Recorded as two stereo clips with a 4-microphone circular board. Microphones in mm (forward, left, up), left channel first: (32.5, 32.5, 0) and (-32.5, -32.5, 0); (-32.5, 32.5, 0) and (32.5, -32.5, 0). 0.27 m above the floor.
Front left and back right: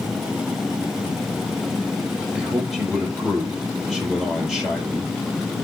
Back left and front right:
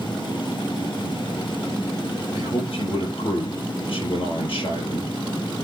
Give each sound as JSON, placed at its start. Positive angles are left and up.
{"t": 2.4, "sound": "a man speaking", "azimuth_deg": 140, "distance_m": 6.0}